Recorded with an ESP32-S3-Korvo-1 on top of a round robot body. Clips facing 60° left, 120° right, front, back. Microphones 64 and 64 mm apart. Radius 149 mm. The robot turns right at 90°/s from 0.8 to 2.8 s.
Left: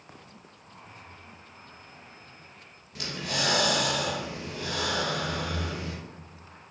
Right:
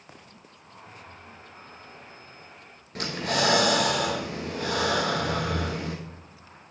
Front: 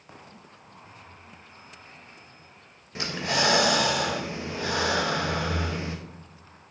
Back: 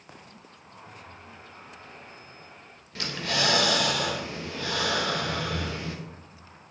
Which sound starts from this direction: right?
Breathing, at 3.0 s.